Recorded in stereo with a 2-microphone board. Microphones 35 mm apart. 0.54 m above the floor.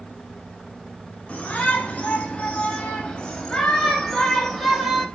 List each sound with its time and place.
1.3 s a shout: 35° left (ahead or behind), 4 m; by 5.1 s 10° right (ahead or behind), 2.5 m